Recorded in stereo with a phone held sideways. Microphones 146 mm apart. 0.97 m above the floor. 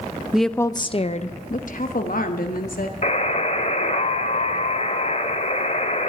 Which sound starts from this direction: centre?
A woman speaking, at 0.3 s.